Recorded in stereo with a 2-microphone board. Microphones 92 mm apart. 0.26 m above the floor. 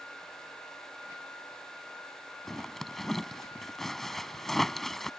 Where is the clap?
No clap in this recording.